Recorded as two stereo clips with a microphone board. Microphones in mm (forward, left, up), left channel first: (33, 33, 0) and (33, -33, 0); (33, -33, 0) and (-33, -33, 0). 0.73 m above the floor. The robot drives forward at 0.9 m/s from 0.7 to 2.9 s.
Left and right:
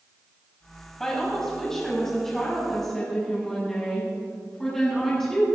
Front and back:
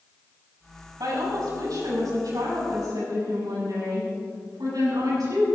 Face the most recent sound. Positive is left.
turn(degrees=175)